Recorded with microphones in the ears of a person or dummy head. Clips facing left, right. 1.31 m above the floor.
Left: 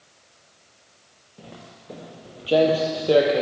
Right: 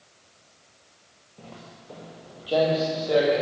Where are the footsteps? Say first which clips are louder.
Left 1 dB; 10° left (ahead or behind), 1.8 m; by 3.4 s 45° left (ahead or behind), 2.5 m.